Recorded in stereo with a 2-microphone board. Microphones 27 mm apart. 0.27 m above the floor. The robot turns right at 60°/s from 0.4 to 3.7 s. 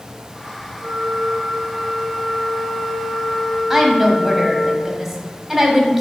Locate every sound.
0.8 s a flute: 75° right, 1.2 m; by 4.7 s 100° left, 1.2 m
3.7 s a woman speaking: 10° right (ahead or behind), 1.4 m